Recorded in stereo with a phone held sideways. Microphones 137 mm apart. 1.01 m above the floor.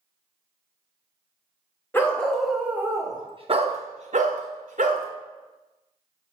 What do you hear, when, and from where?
1.9 s a dog barking: 15° left (ahead or behind), 1.1 m; by 5.1 s 75° right (ahead or behind), 1.4 m